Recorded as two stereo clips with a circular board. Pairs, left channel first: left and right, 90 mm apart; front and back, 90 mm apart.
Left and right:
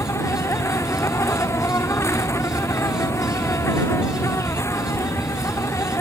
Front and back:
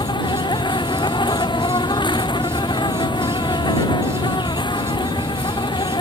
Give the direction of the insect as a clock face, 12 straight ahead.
11 o'clock.